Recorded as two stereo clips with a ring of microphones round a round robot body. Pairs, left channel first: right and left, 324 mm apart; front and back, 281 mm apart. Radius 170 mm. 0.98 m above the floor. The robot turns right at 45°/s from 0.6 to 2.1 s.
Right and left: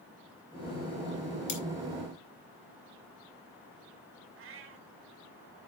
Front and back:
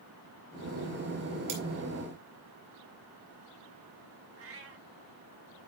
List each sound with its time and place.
1.5 s cutlery clinking: 145° right, 2.5 m; by 1.6 s 140° right, 2.5 m
4.4 s a cat meowing: 140° left, 1.5 m